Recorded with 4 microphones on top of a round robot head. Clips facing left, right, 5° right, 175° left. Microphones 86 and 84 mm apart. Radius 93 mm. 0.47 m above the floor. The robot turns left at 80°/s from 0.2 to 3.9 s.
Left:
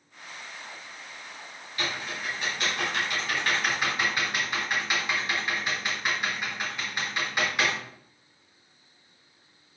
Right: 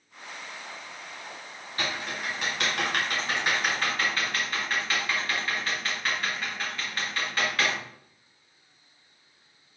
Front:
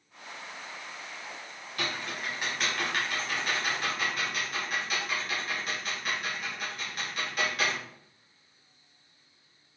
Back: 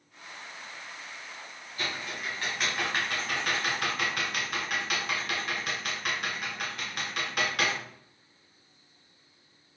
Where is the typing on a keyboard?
30° right, 3 m; by 7.8 s 160° left, 3 m.